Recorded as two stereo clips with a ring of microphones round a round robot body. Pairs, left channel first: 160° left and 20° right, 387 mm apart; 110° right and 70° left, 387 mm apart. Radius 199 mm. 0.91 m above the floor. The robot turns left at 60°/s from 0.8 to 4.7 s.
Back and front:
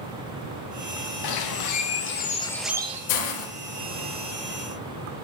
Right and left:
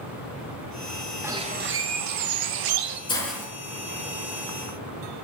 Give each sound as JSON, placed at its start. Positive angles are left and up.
{"t": 1.2, "sound": "a bird", "azimuth_deg": 150, "distance_m": 0.8}
{"t": 3.1, "sound": "a hiss", "azimuth_deg": 170, "distance_m": 2.0}